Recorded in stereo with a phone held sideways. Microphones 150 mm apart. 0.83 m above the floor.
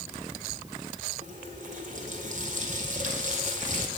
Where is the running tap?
55° right (ahead or behind), 1.8 m.